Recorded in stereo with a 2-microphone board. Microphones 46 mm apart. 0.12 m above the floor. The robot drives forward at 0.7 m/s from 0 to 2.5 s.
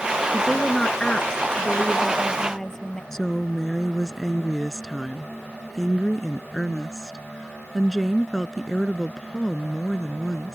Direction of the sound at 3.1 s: 10° left (ahead or behind).